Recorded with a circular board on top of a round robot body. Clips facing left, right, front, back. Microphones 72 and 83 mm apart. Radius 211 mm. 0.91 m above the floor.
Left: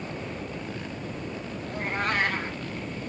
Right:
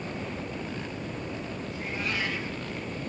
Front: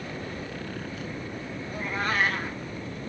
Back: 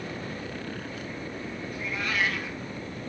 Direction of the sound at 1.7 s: 50° left.